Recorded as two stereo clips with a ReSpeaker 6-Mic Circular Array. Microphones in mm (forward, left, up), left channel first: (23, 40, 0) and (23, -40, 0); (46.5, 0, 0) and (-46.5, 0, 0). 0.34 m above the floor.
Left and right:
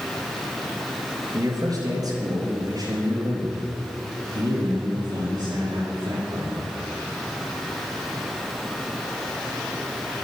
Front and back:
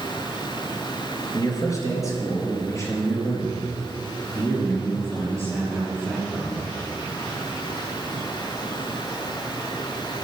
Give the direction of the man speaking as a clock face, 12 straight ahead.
2 o'clock.